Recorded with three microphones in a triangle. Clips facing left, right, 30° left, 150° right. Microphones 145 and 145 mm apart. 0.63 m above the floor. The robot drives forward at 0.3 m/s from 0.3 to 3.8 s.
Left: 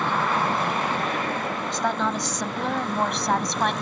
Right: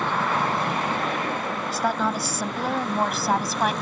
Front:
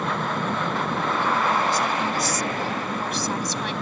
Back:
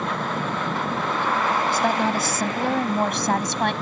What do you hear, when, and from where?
1.7 s a woman speaking: 175° right